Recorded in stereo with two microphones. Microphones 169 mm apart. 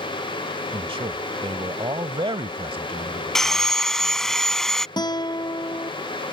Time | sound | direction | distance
0.7 | a man speaking | 30° right (ahead or behind) | ?
3.4 | sawing | 5° left (ahead or behind) | ?
5.0 | a guitar | 25° left (ahead or behind) | ?